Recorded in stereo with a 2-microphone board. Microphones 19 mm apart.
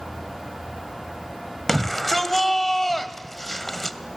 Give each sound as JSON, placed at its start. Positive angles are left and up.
{"t": 1.7, "sound": "a shout", "side_deg": 15, "distance_m": 1.7}